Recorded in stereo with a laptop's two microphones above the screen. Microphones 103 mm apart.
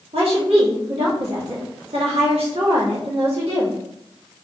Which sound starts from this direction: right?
A woman speaking, at 0.1 s.